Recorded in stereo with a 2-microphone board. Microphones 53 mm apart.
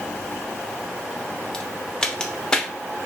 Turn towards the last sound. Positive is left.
turn(degrees=15)  # may be behind; listen again after turning